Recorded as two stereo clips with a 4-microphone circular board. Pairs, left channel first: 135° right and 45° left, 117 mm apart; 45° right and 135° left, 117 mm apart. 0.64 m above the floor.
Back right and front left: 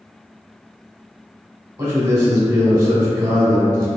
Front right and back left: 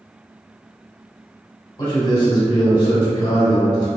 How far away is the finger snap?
I don't hear a finger snap.